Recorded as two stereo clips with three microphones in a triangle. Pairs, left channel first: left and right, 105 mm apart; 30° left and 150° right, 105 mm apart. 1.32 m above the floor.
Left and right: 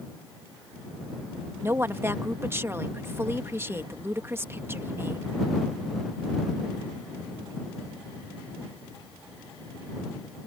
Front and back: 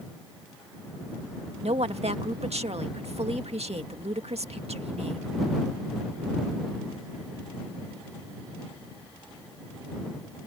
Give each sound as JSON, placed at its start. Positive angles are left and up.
{"t": 1.6, "sound": "a woman speaking", "azimuth_deg": -155}